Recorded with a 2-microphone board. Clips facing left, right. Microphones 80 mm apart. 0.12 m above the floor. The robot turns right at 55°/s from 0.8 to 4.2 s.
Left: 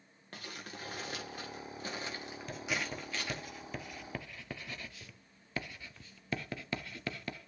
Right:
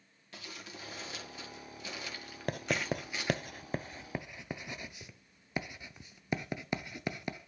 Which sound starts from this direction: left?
Crumpling, at 0.3 s.